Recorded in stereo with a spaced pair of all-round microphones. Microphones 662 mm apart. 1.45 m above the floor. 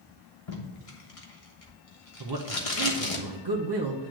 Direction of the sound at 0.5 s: 55° left (ahead or behind).